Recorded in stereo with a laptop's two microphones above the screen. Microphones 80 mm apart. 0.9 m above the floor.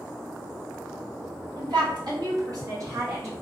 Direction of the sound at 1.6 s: 60° right (ahead or behind).